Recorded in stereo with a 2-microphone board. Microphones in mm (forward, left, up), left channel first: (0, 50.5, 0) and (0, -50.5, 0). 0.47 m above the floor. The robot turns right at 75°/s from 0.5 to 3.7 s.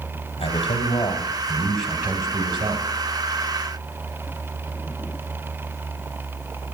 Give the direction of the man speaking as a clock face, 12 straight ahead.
9 o'clock.